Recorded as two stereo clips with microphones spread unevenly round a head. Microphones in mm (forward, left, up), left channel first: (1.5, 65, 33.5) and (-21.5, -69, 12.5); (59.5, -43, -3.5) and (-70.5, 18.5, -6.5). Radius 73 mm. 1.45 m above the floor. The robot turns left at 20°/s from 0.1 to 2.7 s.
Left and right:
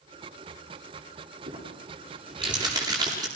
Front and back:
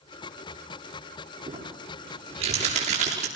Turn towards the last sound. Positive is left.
turn(degrees=-165)